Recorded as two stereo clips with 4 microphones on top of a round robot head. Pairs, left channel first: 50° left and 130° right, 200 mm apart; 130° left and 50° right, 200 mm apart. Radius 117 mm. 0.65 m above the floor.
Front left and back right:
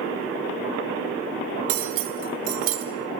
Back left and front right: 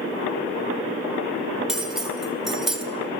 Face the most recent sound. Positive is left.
turn(degrees=-140)